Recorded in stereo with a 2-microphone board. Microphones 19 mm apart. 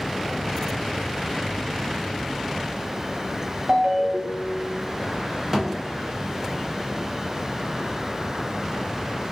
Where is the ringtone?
70° right (ahead or behind), 0.5 m.